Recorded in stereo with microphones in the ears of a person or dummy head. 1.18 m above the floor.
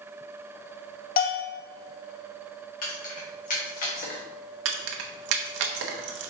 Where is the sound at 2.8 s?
45° left (ahead or behind), 1.3 m.